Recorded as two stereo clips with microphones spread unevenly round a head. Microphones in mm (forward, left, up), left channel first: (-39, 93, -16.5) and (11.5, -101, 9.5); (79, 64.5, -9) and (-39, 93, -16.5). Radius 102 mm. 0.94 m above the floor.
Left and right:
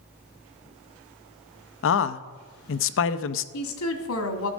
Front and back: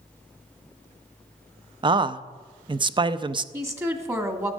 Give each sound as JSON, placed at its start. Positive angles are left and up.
{"t": 1.8, "sound": "a man speaking", "azimuth_deg": 115, "distance_m": 0.6}
{"t": 3.5, "sound": "a woman speaking", "azimuth_deg": 100, "distance_m": 1.8}